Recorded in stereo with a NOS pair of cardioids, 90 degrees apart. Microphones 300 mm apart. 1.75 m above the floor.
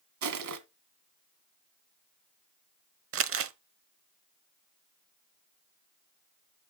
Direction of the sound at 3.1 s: 50° right.